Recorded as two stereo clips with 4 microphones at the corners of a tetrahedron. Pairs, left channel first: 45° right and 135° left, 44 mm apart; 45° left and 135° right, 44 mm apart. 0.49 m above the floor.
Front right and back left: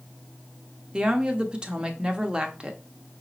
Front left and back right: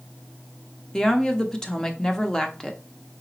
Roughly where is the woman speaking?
Left.